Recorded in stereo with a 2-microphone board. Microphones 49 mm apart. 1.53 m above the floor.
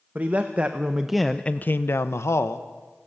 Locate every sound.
0.1 s a man speaking: 35° right (ahead or behind), 1.4 m; by 2.7 s 70° left (ahead or behind), 1.3 m